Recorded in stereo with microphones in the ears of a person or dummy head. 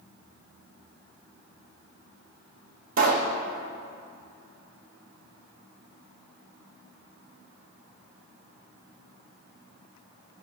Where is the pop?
45° right (ahead or behind), 0.9 m.